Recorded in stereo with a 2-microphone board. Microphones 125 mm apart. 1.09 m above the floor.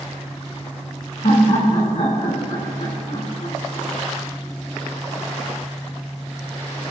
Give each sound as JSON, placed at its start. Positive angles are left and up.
{"t": 1.2, "sound": "laughter", "side_deg": 80, "distance_m": 2.5}